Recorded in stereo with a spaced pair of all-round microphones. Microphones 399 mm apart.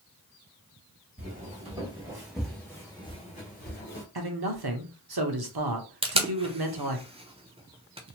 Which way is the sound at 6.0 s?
15° right (ahead or behind).